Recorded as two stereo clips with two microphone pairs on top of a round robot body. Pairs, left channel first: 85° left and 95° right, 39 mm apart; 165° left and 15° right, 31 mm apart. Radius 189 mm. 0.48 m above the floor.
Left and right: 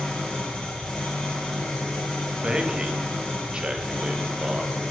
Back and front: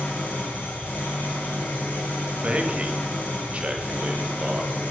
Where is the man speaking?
35° right, 1.8 m.